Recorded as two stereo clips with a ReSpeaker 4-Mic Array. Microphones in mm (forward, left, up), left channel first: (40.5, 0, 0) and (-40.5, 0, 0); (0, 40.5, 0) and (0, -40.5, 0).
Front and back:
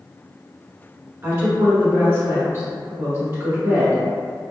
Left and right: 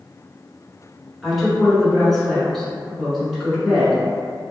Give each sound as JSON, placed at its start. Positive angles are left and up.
{"t": 1.2, "sound": "a woman speaking", "azimuth_deg": 175, "distance_m": 1.4}